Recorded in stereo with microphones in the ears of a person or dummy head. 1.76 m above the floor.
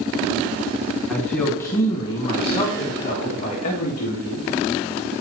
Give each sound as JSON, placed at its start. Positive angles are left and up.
{"t": 1.1, "sound": "a man speaking", "side_deg": 5, "distance_m": 1.3}